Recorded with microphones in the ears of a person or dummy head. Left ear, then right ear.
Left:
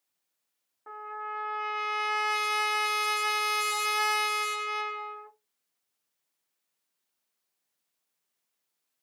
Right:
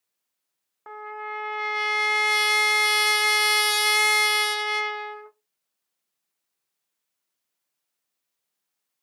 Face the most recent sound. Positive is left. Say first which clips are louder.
# right 3 dB
turn(degrees=-85)